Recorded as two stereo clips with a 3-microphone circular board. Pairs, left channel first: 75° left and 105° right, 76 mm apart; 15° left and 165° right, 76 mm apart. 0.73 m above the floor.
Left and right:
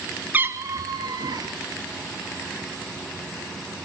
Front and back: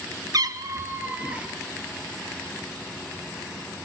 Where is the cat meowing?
165° right, 1.1 m; by 1.5 s 90° right, 1.6 m.